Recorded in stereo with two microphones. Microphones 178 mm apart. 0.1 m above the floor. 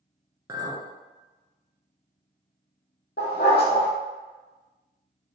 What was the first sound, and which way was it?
A clink, 20° right (ahead or behind).